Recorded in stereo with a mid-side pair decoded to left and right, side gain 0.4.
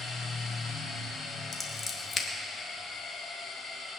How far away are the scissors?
About 2 m.